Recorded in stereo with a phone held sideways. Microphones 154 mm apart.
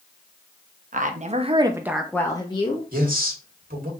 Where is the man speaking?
65° right (ahead or behind), 1.6 m.